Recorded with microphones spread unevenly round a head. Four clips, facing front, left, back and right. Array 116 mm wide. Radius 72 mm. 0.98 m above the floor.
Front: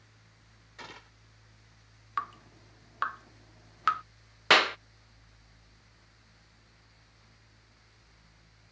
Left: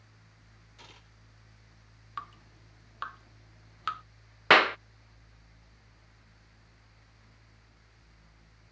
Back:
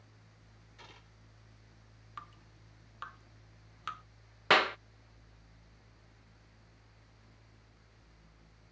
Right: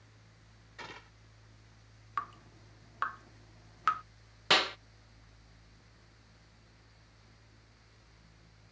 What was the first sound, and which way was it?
A gunshot, 20° right.